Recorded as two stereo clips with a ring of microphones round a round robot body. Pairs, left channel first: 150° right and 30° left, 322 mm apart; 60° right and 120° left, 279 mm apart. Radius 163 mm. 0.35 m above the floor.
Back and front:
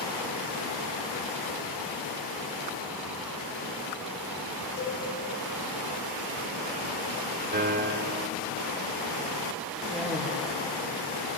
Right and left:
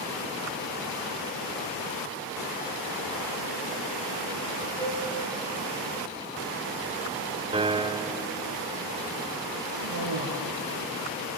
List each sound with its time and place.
4.8 s a cowbell: 135° right, 3 m
7.5 s a piano: 65° left, 1.3 m
9.7 s a cough: 120° left, 6.5 m